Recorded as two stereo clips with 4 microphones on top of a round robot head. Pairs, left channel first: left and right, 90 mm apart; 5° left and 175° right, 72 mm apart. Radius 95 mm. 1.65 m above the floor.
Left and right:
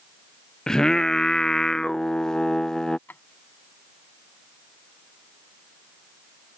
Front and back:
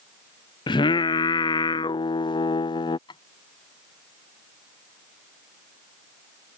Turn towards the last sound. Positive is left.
turn(degrees=20)